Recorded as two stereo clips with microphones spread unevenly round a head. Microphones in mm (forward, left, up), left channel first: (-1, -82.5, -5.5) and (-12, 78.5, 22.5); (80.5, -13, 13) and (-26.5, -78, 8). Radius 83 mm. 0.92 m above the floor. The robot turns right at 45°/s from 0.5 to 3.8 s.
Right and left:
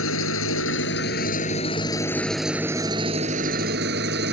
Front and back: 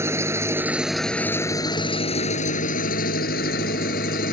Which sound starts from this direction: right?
An engine running, at 0.0 s.